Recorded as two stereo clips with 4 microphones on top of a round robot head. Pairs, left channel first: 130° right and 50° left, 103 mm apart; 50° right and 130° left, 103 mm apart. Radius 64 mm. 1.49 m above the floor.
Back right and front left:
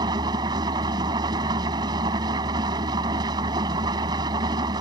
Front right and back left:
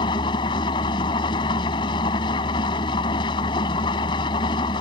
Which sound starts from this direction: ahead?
An engine running, at 0.0 s.